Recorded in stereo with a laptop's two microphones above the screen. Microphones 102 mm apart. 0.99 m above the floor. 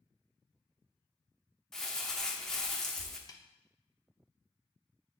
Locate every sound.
1.7 s crumpling: 5° left (ahead or behind), 0.9 m
3.3 s a snare drum: 40° left (ahead or behind), 0.7 m